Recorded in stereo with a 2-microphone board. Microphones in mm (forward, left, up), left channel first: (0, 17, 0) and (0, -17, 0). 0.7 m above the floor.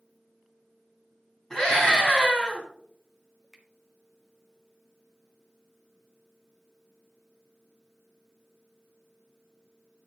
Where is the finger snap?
5° left (ahead or behind), 1.1 m.